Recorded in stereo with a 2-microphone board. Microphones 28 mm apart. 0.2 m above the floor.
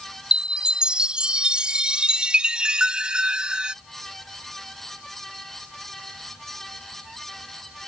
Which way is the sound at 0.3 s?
30° right (ahead or behind).